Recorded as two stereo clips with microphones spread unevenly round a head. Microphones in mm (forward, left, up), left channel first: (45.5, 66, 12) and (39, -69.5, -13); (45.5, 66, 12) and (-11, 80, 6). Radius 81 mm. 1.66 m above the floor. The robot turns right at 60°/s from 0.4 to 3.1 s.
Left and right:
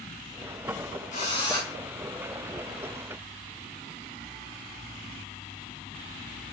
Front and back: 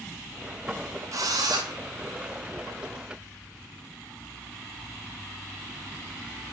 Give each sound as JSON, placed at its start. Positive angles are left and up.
{"t": 1.1, "sound": "a drill", "azimuth_deg": 135, "distance_m": 4.0}